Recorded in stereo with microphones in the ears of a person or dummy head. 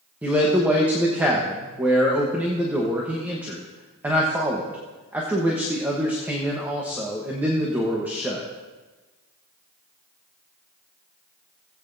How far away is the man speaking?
About 1.1 m.